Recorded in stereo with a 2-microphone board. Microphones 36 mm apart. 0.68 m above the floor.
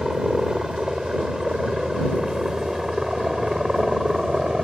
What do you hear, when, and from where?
0.0 s a helicopter: 15° right (ahead or behind)